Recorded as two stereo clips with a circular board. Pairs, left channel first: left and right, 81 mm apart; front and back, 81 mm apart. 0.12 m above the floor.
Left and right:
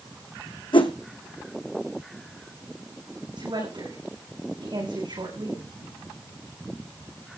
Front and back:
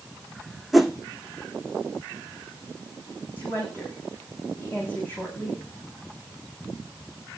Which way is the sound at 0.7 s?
90° left.